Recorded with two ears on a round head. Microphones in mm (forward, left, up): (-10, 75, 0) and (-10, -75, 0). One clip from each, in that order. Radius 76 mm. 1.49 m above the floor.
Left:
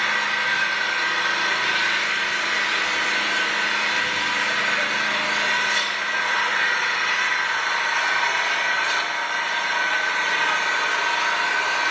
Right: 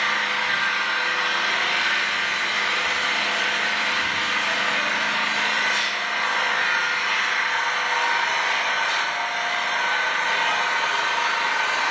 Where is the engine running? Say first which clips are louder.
Left 1 dB; 45° left (ahead or behind), 2 m.